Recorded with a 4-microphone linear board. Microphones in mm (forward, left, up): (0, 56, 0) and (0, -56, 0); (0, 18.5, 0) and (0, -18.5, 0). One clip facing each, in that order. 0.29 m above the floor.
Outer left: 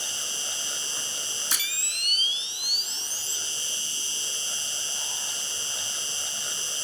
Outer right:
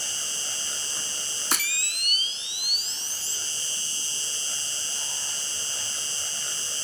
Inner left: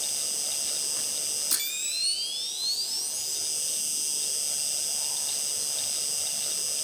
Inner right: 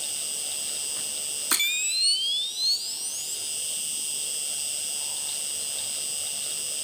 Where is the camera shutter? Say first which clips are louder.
Outer right 10 dB, inner right 10 dB; 60° right (ahead or behind), 0.8 m.